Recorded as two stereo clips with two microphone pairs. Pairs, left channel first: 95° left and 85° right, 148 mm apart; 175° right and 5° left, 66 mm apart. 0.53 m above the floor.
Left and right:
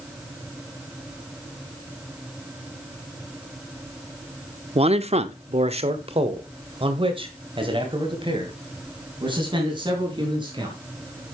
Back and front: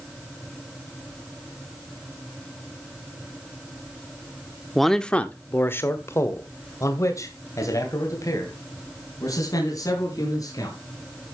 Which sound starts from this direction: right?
A man speaking, at 4.8 s.